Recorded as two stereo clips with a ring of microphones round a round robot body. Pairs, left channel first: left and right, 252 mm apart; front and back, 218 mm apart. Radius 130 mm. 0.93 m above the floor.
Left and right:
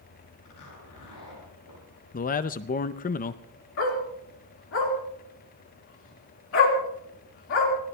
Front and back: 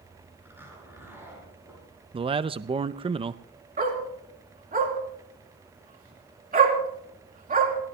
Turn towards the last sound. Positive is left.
turn(degrees=130)